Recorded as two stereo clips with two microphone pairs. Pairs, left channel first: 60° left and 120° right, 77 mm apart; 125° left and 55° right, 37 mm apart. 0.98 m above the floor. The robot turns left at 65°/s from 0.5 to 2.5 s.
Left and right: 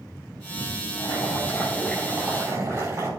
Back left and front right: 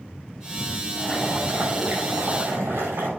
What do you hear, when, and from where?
1.0 s boiling: 30° left, 6.5 m; by 3.1 s 70° right, 6.5 m